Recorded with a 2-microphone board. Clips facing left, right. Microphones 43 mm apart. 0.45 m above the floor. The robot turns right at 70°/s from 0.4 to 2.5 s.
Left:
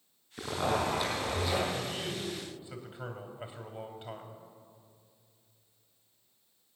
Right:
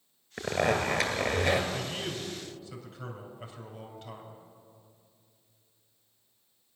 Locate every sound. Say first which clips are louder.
0.4 s a zipper: right 3 dB; 130° right, 2.5 m; by 1.6 s 45° right, 2.5 m
1.7 s a man speaking: right 1 dB; 35° right, 2.5 m; by 4.4 s 25° left, 2.5 m